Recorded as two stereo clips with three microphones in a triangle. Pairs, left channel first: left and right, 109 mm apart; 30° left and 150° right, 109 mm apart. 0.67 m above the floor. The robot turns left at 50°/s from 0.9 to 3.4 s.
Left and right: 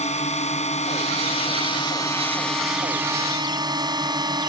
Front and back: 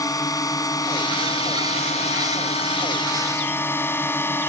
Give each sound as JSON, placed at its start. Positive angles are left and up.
{"t": 0.0, "sound": "a drone", "azimuth_deg": 90}